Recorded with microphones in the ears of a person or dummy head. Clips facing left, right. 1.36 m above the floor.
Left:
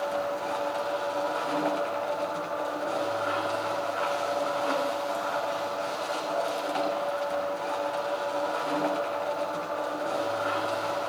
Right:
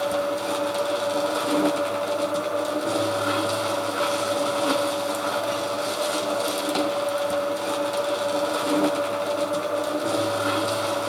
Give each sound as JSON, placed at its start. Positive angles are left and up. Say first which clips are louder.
{"t": 0.0, "sound": "a machine running", "louder": "right 5 dB", "side_deg": -55, "distance_m": 1.9}